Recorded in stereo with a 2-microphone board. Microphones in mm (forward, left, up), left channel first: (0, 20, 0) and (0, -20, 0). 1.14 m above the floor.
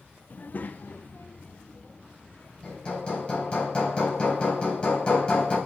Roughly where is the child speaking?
Left.